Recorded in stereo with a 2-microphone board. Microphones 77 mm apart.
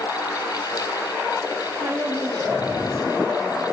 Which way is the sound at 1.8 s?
65° right (ahead or behind).